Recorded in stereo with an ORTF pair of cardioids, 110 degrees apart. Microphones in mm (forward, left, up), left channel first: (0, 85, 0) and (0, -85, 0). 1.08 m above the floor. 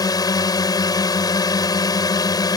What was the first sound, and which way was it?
A drone, 25° left.